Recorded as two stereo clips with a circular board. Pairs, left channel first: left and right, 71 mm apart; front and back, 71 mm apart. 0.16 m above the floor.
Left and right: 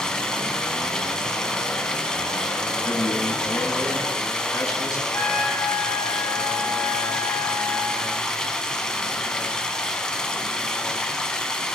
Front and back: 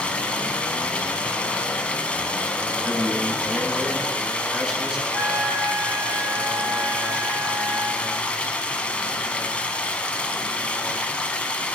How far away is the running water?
About 0.9 m.